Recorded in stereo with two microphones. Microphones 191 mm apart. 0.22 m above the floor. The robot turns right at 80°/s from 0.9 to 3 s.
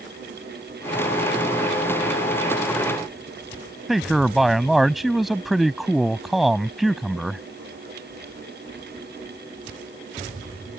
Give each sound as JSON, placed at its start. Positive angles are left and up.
{"t": 3.9, "sound": "a man speaking", "side_deg": 0}